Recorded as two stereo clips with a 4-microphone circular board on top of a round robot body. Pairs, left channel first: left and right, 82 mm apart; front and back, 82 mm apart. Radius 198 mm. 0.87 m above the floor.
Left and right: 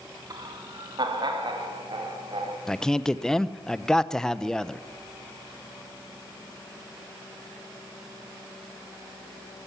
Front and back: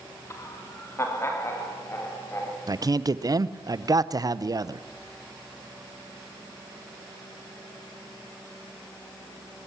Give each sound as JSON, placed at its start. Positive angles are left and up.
{"t": 0.3, "sound": "laughter", "azimuth_deg": -50, "distance_m": 2.0}
{"t": 2.7, "sound": "a man speaking", "azimuth_deg": 170, "distance_m": 1.1}